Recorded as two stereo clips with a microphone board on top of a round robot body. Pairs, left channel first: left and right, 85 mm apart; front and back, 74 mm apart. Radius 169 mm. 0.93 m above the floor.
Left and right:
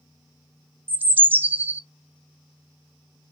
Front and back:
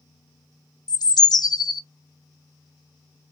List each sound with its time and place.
0.9 s a bird: 20° right, 0.7 m